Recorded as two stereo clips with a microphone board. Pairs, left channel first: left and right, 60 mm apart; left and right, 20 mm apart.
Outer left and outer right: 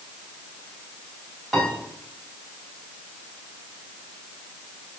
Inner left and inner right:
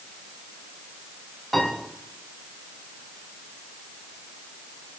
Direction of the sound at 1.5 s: 5° right (ahead or behind).